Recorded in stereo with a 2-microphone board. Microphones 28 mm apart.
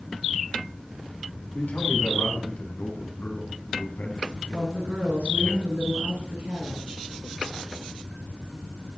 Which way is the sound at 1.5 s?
85° left.